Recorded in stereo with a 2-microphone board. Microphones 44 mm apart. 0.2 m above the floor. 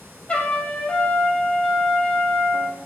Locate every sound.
0.3 s a trumpet: 25° left (ahead or behind), 2.5 m